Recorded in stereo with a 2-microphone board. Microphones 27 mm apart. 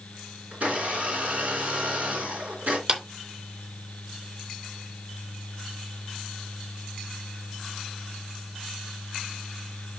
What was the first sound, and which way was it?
A blender, 65° right (ahead or behind).